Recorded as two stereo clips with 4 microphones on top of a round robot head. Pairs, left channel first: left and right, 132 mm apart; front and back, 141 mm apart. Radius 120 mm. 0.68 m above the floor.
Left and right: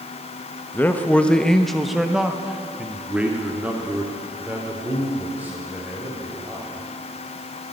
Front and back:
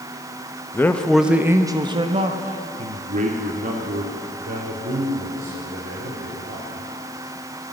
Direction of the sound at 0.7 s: 40° left.